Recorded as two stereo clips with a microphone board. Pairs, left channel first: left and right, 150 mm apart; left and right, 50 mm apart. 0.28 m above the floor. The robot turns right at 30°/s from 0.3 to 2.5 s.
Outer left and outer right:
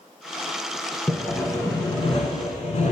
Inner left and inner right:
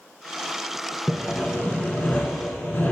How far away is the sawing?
About 0.8 m.